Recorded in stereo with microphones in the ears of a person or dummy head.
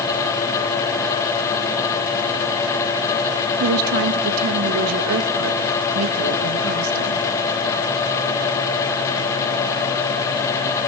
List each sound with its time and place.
3.6 s a woman speaking: 75° right (ahead or behind), 2.5 m